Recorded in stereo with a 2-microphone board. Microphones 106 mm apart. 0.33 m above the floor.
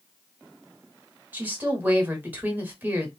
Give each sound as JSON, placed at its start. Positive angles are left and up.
{"t": 1.3, "sound": "a woman speaking", "side_deg": -20, "distance_m": 0.9}